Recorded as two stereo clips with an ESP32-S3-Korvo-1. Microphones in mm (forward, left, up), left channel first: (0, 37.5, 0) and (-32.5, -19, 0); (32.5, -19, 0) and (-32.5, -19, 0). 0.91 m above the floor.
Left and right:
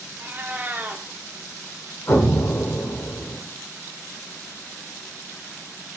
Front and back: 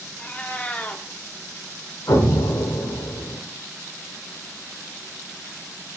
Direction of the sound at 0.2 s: 65° right.